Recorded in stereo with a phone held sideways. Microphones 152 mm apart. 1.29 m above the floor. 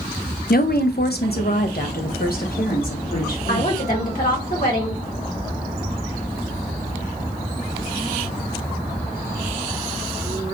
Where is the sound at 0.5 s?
65° left (ahead or behind), 0.5 m; by 3.7 s 60° left (ahead or behind), 2.0 m.